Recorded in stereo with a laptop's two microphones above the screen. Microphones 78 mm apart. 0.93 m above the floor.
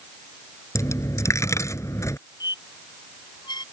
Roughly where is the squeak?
Left.